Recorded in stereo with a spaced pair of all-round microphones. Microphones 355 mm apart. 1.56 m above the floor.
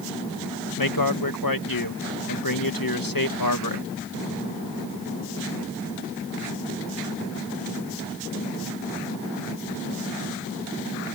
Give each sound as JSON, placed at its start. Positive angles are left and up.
{"t": 0.8, "sound": "a man speaking", "side_deg": 70}